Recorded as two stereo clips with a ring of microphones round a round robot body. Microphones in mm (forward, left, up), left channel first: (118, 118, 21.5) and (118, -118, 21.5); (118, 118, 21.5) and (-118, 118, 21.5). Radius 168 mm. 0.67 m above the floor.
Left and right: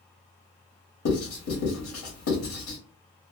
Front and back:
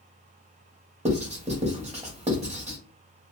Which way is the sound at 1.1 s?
120° left.